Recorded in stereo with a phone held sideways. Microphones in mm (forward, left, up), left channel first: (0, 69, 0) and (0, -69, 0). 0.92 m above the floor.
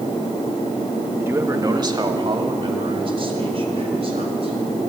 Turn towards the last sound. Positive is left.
turn(degrees=-45)  # may be behind; listen again after turning